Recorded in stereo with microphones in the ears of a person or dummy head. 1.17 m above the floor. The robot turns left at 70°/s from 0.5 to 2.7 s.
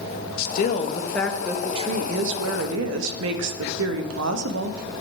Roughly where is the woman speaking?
Ahead left.